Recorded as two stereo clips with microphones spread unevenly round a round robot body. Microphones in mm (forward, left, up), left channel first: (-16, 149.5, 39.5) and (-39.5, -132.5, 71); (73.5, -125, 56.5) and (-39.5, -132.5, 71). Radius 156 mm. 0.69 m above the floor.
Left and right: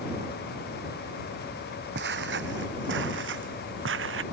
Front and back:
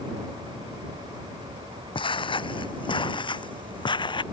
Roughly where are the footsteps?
Ahead right.